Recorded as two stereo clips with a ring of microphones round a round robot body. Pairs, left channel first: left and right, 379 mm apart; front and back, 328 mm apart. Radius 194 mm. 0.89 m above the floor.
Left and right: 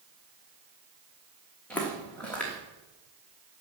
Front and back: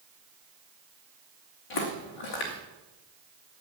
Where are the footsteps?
5° left, 3 m.